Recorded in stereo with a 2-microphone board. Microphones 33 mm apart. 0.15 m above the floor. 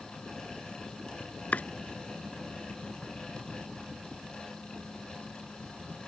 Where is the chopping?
50° left (ahead or behind).